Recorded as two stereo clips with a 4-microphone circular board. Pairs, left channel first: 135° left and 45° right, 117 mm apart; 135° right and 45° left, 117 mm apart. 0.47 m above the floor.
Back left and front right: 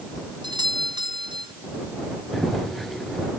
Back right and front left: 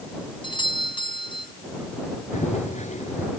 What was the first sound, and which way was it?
A doorbell, 90° right.